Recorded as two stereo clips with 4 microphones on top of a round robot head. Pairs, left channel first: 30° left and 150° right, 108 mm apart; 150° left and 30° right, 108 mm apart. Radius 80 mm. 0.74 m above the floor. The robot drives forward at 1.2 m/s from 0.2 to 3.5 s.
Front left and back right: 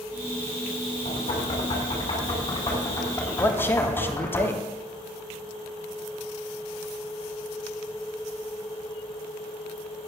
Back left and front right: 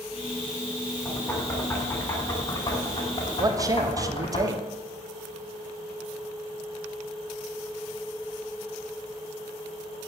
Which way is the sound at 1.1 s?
65° left.